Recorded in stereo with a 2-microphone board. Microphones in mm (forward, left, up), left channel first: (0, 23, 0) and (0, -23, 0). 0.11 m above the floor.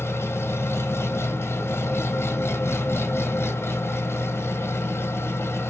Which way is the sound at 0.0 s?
65° left (ahead or behind).